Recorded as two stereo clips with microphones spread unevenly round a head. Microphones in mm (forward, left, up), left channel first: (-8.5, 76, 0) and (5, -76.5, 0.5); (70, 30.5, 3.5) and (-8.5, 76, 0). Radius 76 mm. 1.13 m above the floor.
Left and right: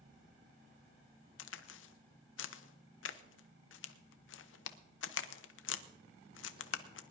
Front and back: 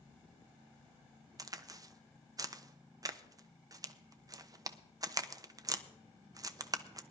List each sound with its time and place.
1.4 s a crack: 100° left, 0.8 m